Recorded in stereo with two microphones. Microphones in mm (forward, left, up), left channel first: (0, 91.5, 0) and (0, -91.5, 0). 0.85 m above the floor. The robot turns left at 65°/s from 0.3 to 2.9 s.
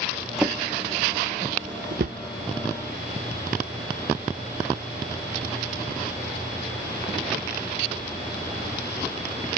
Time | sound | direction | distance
0.4 | a drawer | centre (ahead or behind) | 0.5 m